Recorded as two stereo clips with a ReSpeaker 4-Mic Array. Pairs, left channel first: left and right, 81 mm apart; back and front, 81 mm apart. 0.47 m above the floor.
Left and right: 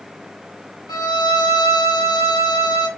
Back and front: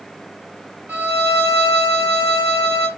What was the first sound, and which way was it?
A violin, 65° left.